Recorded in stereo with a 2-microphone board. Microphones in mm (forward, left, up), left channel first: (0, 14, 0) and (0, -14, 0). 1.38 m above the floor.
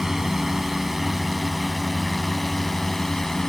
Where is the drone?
15° right (ahead or behind); by 3.5 s 15° left (ahead or behind).